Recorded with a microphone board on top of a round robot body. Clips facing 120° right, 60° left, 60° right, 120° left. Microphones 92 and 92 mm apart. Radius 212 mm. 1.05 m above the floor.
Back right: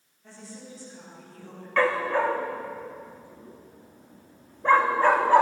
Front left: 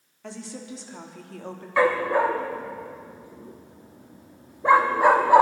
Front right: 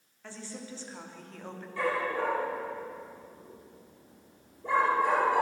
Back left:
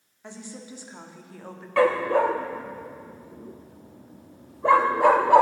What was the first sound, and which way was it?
A woman speaking, 50° left.